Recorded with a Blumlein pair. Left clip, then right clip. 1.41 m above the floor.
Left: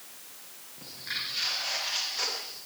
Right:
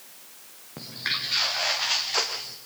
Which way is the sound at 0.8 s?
45° right.